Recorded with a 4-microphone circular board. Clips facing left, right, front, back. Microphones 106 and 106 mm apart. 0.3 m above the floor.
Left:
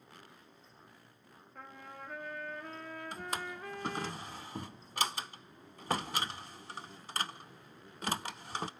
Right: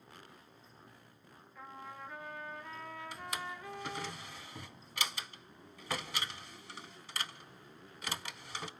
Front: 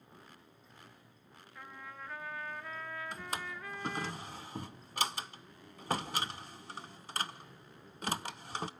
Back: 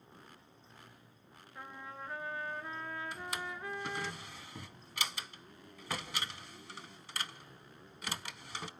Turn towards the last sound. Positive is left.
turn(degrees=45)